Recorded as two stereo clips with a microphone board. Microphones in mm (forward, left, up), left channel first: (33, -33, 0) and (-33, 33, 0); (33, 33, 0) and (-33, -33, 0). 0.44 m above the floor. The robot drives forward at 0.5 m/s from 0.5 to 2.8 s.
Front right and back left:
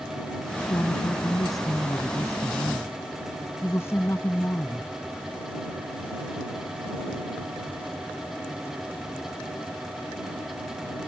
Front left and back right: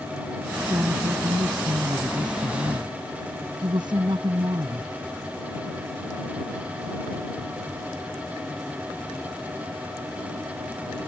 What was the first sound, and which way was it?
A woman speaking, 85° right.